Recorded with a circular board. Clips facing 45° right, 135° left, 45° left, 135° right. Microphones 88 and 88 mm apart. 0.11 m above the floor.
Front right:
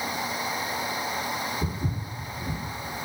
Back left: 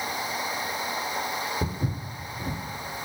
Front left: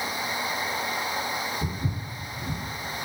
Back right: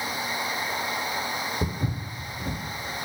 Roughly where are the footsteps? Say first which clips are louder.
Back left 1 dB, back right 2 dB; behind.